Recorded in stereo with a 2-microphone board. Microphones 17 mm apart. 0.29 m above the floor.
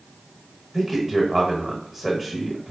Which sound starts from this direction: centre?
A man speaking, at 0.7 s.